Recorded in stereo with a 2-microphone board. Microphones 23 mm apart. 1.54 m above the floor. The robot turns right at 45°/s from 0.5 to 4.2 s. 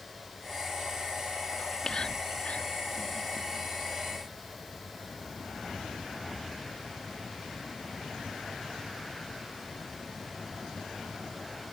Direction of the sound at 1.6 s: 20° left (ahead or behind).